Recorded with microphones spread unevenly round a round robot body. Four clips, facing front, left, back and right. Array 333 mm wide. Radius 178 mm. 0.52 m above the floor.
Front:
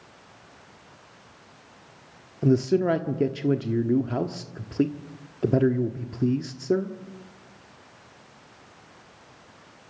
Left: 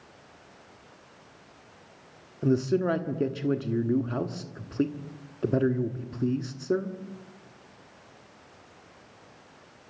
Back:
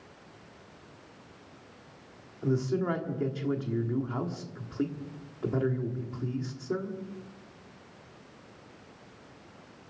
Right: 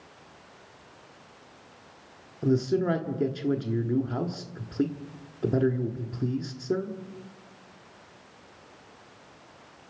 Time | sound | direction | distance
2.4 | a man speaking | straight ahead | 1.4 m